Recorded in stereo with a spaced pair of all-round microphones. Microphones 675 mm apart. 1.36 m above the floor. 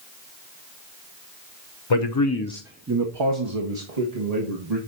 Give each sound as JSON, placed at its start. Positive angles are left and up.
{"t": 1.9, "sound": "a man speaking", "side_deg": 45, "distance_m": 0.9}